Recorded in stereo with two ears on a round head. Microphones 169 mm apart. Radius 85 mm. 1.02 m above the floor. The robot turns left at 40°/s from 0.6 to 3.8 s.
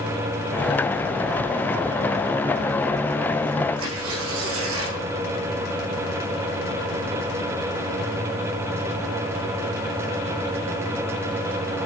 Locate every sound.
3.8 s tearing paper: 85° right, 8 m